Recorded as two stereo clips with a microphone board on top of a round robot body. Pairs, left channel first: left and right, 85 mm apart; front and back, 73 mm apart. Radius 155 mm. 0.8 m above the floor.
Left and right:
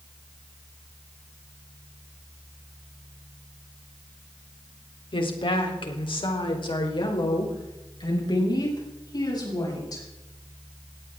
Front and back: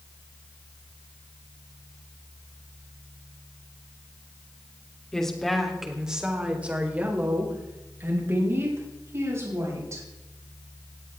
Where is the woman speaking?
80° left, 3.5 m; by 10.0 s 130° left, 7.5 m.